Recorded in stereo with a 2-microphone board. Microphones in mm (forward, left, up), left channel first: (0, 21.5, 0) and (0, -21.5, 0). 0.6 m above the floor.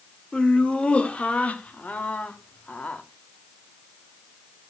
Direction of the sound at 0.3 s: 25° left (ahead or behind).